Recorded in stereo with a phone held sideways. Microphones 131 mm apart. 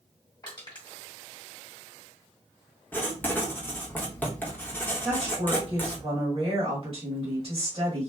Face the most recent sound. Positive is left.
turn(degrees=-45)  # may be behind; listen again after turning